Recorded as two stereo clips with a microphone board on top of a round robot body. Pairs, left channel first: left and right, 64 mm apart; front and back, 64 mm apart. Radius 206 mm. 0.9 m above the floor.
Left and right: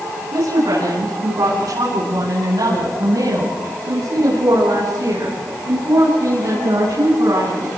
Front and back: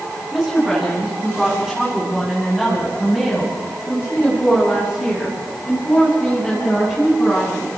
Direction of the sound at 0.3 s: 85° right.